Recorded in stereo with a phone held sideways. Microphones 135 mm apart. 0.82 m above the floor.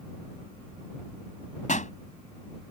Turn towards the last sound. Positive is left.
turn(degrees=70)  # may be behind; listen again after turning